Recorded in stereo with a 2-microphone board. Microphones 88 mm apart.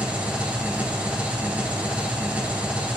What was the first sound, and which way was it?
An engine running, 15° right (ahead or behind).